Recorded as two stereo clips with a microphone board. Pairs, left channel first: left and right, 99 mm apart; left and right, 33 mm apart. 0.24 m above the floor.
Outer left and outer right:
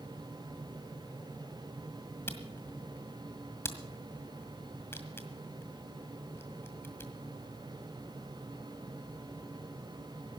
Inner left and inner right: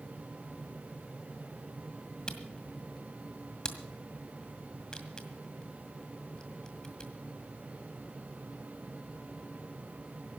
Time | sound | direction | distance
2.3 | a camera shutter | 25° left (ahead or behind) | 1.8 m